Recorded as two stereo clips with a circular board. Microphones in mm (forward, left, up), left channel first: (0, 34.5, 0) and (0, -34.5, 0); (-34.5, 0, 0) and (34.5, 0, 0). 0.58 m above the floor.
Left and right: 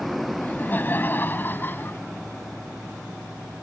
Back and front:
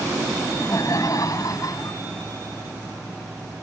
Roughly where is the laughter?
Behind left.